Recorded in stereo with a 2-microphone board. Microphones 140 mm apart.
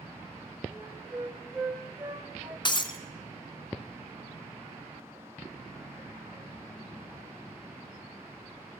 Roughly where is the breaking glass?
Left.